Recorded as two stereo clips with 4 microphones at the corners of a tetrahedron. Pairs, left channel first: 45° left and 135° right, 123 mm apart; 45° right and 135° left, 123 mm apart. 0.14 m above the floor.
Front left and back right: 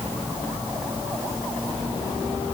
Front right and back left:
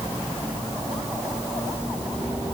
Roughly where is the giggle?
I don't hear a giggle.